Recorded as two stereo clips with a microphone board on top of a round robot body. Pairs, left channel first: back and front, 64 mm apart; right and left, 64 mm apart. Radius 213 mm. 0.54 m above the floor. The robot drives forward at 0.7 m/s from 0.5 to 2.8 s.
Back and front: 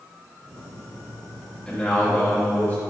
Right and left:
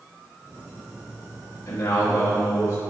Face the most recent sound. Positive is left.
turn(degrees=-130)